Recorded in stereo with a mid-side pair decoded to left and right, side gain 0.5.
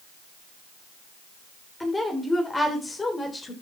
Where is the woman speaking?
10° left, 3 m; by 3.5 s 25° left, 3.5 m.